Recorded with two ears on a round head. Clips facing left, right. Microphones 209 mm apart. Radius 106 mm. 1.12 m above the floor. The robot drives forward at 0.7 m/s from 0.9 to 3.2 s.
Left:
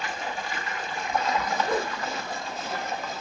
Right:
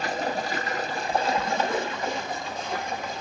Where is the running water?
35° right (ahead or behind), 0.9 m; by 3.2 s 15° right (ahead or behind), 2.5 m.